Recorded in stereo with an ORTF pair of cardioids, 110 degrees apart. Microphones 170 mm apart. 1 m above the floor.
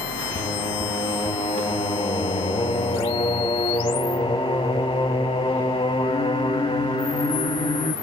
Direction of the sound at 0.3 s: 30° left.